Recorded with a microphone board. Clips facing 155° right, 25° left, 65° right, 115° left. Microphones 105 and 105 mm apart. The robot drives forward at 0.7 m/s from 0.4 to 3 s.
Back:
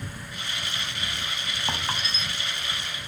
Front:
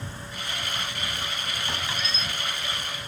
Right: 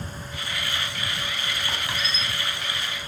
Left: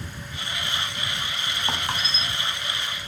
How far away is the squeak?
About 2 m.